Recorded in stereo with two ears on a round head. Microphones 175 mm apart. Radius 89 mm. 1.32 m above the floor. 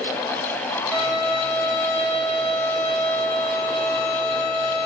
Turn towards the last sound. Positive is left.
turn(degrees=-65)  # may be behind; listen again after turning